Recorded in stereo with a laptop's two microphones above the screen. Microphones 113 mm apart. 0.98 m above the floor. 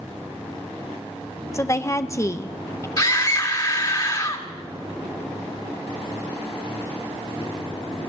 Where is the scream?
35° left (ahead or behind), 2 m.